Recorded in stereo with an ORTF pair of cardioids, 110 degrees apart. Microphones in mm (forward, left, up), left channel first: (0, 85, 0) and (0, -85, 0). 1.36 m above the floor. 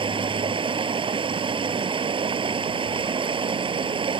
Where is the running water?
30° right.